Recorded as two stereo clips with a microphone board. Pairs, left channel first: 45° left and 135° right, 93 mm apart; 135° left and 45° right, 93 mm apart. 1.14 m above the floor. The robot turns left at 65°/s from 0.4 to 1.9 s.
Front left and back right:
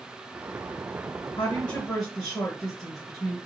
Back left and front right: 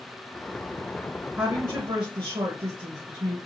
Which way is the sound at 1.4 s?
20° left.